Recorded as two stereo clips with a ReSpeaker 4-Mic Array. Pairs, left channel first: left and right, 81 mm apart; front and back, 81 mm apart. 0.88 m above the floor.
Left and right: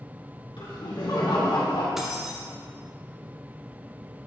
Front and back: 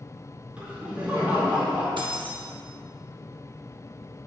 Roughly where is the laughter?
Left.